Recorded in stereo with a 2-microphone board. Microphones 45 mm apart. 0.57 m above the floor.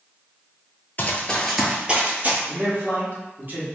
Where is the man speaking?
40° right (ahead or behind), 0.8 m.